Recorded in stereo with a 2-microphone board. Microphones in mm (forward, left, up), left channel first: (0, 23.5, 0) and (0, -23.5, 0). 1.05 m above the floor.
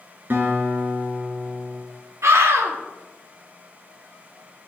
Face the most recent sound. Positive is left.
turn(degrees=-85)